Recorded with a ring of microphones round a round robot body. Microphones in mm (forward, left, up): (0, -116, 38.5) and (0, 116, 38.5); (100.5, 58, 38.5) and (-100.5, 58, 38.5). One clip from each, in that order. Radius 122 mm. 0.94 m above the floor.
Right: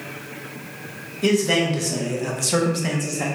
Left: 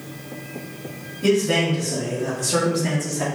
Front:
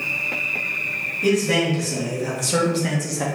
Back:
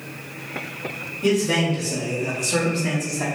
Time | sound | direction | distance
1.2 | a man speaking | 80° right | 1.3 m